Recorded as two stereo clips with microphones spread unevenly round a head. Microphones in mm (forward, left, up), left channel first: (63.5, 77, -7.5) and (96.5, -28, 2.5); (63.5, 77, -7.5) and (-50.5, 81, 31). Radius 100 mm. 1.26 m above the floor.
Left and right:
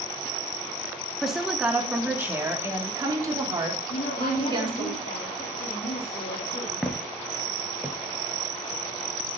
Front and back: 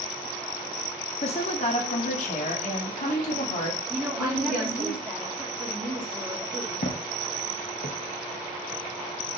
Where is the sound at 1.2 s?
15° left, 2.0 m; by 4.9 s 30° right, 3.5 m.